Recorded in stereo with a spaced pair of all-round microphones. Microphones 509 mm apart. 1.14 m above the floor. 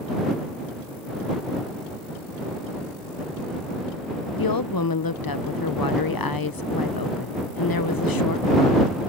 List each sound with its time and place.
4.4 s a woman speaking: 45° left (ahead or behind)